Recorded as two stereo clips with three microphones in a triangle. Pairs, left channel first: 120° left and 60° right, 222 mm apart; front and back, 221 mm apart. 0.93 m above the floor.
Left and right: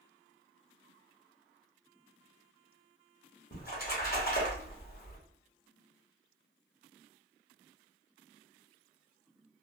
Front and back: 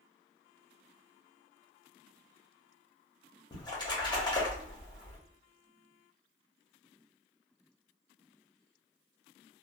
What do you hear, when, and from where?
3.5 s a splash: 75° left, 1.2 m